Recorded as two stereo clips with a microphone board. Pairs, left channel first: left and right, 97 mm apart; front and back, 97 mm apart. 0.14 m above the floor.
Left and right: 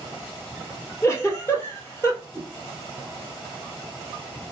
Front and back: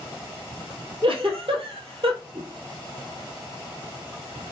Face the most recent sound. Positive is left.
turn(degrees=-160)